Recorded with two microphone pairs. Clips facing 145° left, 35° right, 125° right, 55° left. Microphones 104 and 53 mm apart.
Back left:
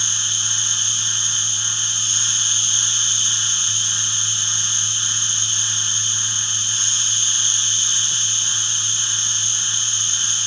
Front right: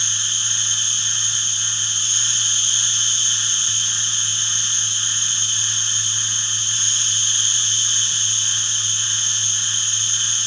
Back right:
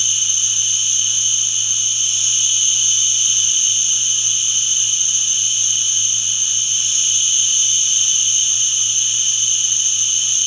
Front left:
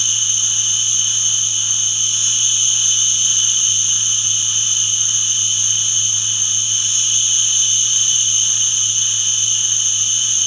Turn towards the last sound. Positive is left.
turn(degrees=-85)